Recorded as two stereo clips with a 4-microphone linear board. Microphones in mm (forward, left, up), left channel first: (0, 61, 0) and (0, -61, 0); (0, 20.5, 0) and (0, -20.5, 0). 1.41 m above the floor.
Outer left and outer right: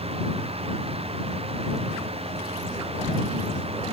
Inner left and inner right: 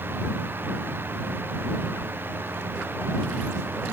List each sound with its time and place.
Only background noise.